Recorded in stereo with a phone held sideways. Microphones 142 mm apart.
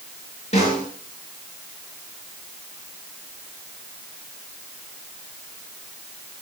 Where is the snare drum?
50° left (ahead or behind), 6.5 m.